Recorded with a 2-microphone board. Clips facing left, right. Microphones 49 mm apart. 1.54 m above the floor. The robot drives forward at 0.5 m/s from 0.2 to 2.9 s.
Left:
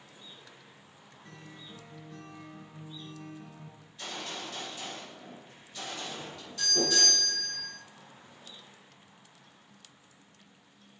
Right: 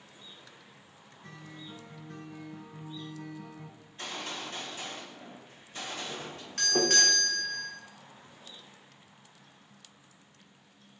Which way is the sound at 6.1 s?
60° right (ahead or behind).